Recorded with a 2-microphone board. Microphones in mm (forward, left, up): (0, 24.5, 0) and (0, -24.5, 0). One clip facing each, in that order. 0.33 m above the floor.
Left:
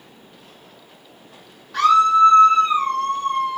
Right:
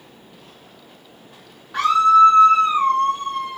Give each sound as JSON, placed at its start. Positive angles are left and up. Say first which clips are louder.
{"t": 1.7, "sound": "a scream", "louder": "right 1 dB", "side_deg": -25, "distance_m": 1.6}